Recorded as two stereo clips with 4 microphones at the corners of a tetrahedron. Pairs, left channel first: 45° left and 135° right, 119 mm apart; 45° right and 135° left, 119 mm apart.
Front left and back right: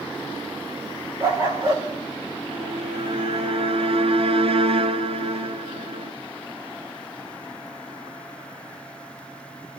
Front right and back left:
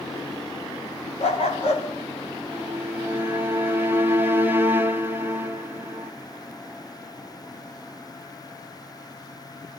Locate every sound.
1.2 s a dog barking: 70° right, 6.5 m
2.5 s a violin: 155° right, 1.6 m